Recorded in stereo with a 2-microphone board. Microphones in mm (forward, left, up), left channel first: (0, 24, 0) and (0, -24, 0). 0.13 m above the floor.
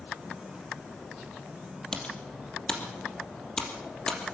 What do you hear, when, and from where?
1.9 s typing on a keyboard: 15° left (ahead or behind), 3.5 m